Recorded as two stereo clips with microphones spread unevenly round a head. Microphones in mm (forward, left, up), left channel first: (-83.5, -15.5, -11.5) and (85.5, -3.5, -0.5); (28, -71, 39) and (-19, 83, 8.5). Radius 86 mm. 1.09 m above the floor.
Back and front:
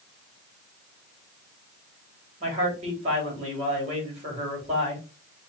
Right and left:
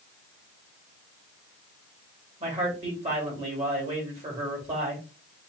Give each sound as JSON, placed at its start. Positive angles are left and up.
{"t": 2.4, "sound": "a man speaking", "azimuth_deg": 60, "distance_m": 2.5}